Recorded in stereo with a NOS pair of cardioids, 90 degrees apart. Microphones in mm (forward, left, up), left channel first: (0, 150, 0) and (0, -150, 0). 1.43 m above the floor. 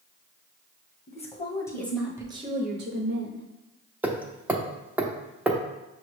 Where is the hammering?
5° right, 0.6 m.